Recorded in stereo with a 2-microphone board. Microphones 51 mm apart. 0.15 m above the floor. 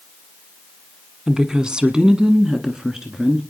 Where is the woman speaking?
15° right (ahead or behind), 1.1 m; by 3.4 s 10° right (ahead or behind), 1.8 m.